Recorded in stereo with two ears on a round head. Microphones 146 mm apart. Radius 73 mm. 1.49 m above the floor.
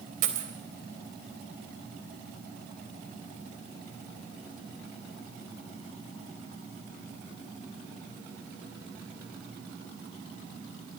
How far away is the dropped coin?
About 3.5 m.